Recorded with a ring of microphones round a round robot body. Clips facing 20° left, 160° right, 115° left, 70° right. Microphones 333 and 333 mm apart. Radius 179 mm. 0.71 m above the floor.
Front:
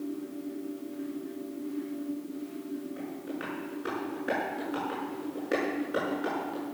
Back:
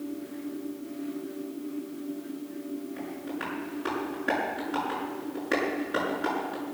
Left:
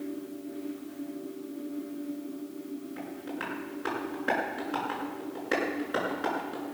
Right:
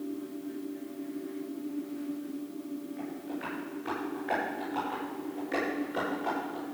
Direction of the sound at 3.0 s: 120° left.